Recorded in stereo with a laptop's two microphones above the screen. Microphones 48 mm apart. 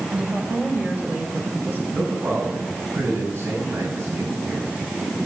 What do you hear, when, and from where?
0.1 s a woman speaking: 25° right (ahead or behind), 4 m; by 1.8 s 40° right (ahead or behind), 3.5 m
1.9 s a man speaking: 55° right (ahead or behind), 6.5 m